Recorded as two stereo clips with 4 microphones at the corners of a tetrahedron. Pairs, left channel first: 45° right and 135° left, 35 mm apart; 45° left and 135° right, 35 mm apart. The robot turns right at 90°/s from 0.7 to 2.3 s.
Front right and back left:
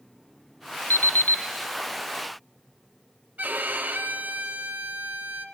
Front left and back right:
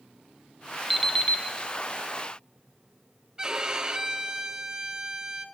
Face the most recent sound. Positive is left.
turn(degrees=160)